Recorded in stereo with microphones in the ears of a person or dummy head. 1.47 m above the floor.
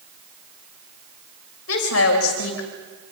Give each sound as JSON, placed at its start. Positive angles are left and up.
{"t": 1.7, "sound": "a woman speaking", "side_deg": 85, "distance_m": 6.5}